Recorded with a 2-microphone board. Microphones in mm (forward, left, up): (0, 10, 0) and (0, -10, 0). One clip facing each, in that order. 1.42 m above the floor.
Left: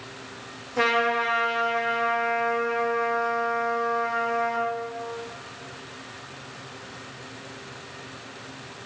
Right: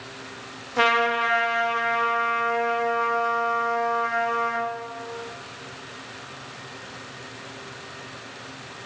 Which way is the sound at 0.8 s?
20° right (ahead or behind).